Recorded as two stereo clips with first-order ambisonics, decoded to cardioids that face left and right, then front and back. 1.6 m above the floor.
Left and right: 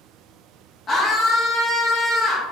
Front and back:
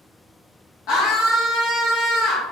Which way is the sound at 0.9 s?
35° left.